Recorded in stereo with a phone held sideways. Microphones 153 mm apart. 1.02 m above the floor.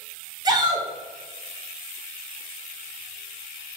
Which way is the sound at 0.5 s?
25° right (ahead or behind).